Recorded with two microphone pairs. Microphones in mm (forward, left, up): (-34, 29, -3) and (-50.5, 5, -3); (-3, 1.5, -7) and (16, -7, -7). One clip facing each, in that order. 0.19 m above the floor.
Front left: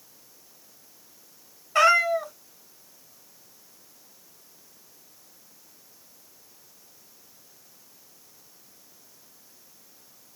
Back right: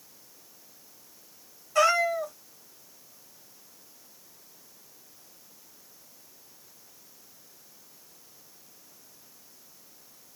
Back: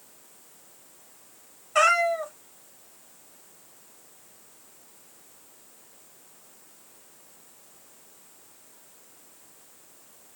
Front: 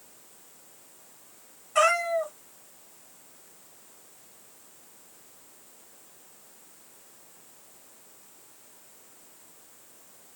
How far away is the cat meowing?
About 1.0 m.